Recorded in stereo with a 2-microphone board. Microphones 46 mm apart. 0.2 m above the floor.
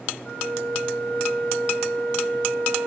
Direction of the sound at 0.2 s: 30° left (ahead or behind).